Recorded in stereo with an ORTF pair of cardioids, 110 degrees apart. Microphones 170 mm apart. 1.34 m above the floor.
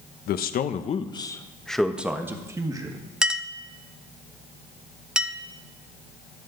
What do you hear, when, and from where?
0.3 s a man speaking: 65° left, 1.1 m; by 3.1 s 25° right, 2 m
3.2 s a clink: 5° right, 0.6 m